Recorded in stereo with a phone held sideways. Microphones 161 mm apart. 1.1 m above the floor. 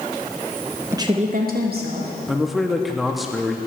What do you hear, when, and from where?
0.9 s a woman speaking: 15° right (ahead or behind), 0.5 m; by 2.1 s 80° right, 1.5 m
2.3 s a man speaking: centre (ahead or behind), 0.6 m